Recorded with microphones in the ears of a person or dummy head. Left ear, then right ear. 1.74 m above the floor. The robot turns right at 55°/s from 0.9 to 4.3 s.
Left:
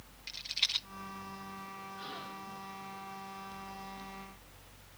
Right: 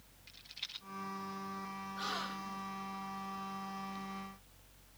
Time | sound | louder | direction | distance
0.3 | a rattle | left 13 dB | 30° left (ahead or behind) | ?
2.0 | a gasp | right 7 dB | 140° right | ?